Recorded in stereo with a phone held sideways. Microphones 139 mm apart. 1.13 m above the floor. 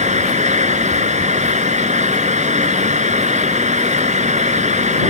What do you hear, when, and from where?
0.0 s a fan: 60° right (ahead or behind)